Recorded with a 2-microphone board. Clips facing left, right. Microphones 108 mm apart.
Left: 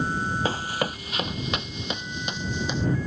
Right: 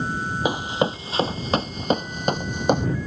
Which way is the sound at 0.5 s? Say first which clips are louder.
Right 5 dB; 15° right (ahead or behind).